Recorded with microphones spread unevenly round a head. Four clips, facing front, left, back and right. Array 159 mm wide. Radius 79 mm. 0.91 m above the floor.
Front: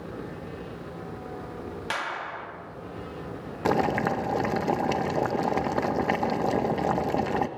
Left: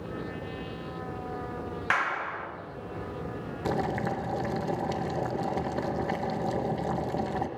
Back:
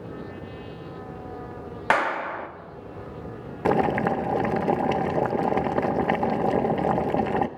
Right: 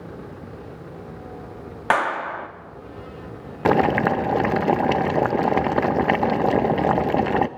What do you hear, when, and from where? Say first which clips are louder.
1.9 s a clap: right 9 dB, back 11 dB; 130° right, 1.2 m
3.6 s boiling: right 12 dB, back 2 dB; 105° right, 0.9 m